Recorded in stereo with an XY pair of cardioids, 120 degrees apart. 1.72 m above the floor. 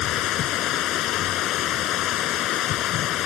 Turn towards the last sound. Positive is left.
turn(degrees=70)